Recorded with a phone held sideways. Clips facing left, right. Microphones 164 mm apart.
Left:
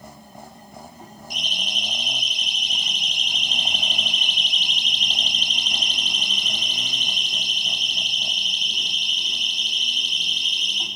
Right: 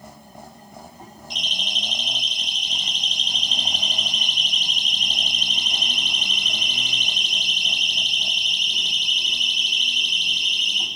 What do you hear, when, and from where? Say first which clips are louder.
1.3 s a siren: even; 20° right (ahead or behind), 6 m; by 10.9 s 70° right (ahead or behind), 5 m